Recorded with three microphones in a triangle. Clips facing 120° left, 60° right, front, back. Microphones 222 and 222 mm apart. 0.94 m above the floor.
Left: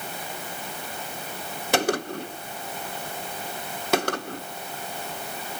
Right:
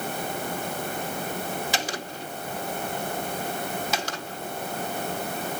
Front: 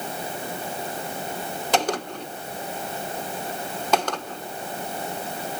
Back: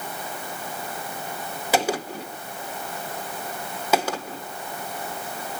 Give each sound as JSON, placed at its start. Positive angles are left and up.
{"t": 1.7, "sound": "a gunshot", "azimuth_deg": 95, "distance_m": 1.1}